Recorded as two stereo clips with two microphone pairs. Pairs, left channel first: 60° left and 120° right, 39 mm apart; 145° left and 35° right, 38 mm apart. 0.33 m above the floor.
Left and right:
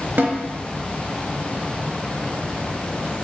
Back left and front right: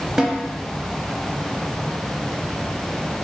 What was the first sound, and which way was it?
A snare drum, 115° right.